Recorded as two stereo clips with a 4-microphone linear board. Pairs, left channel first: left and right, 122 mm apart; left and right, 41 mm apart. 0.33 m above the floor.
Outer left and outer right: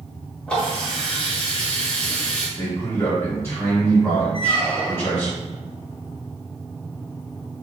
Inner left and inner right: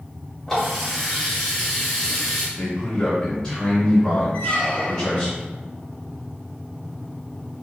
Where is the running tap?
10° left (ahead or behind), 1.1 m.